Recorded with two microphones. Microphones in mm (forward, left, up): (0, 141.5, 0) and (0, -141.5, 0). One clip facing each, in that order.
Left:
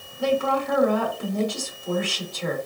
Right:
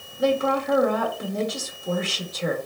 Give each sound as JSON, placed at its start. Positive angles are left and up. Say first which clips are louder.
{"t": 0.2, "sound": "a woman speaking", "louder": "right 1 dB", "side_deg": -20, "distance_m": 1.2}